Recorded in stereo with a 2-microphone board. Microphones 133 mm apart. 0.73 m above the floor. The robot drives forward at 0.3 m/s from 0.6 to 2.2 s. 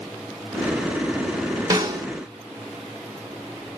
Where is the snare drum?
25° right (ahead or behind), 0.8 m; by 2.1 s 30° right (ahead or behind), 0.7 m.